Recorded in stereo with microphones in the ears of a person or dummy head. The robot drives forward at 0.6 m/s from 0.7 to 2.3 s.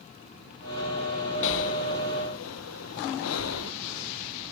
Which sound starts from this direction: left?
Breathing, at 1.4 s.